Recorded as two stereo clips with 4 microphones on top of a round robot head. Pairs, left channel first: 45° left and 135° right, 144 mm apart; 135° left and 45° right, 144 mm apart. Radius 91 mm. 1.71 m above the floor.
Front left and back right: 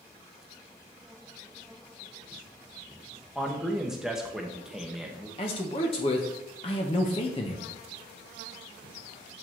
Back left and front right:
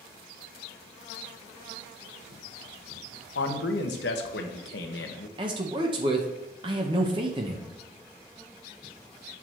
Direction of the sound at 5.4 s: 5° left.